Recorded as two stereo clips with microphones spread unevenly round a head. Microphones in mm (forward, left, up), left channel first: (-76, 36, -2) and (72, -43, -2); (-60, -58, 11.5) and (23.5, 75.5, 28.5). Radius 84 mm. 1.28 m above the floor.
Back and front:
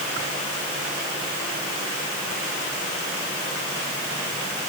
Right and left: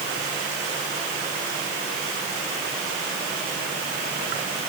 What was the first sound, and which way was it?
Only background noise.